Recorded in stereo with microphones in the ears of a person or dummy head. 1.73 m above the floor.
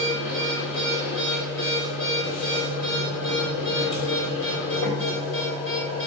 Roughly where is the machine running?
Left.